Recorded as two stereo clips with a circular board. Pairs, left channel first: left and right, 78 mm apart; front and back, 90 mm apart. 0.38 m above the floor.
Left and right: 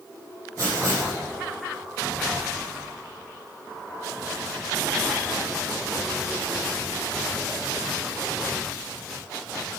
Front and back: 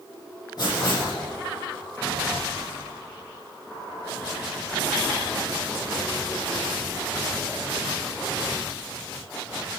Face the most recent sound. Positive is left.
turn(degrees=-40)